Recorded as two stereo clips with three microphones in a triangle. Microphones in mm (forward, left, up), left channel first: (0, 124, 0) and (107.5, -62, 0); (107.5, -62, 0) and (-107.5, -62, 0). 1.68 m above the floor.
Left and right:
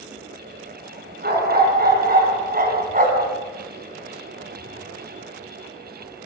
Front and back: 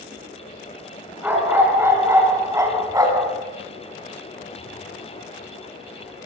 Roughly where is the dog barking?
Right.